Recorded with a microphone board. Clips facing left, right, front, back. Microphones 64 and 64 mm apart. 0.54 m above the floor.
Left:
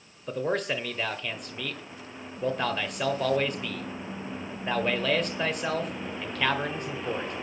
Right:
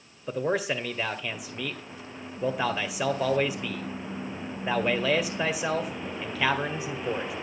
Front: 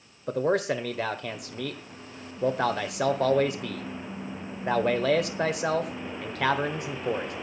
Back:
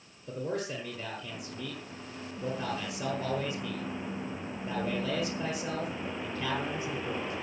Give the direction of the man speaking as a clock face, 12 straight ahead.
12 o'clock.